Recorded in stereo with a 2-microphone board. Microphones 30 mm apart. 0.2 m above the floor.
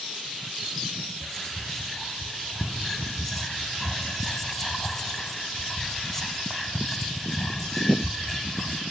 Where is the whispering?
10° left (ahead or behind), 1.2 m.